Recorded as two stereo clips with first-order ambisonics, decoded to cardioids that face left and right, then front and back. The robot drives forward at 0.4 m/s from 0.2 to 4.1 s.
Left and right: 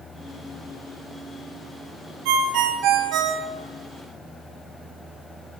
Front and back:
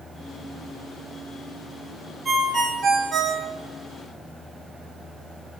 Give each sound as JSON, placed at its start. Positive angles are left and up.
{"t": 2.2, "sound": "a ringtone", "azimuth_deg": -100, "distance_m": 0.8}